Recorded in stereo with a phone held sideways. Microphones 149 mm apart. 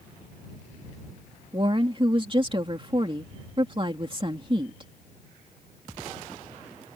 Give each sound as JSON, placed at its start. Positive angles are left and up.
{"t": 1.5, "sound": "a woman speaking", "side_deg": -35}